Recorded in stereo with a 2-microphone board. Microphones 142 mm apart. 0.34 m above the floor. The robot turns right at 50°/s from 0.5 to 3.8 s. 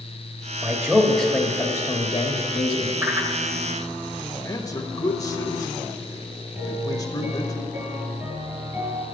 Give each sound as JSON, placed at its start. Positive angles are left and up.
{"t": 0.6, "sound": "a man speaking", "azimuth_deg": -20, "distance_m": 1.0}
{"t": 3.0, "sound": "a whoosh", "side_deg": -15, "distance_m": 1.1}
{"t": 4.4, "sound": "a man speaking", "side_deg": 25, "distance_m": 1.2}
{"t": 6.5, "sound": "a piano", "side_deg": -20, "distance_m": 3.5}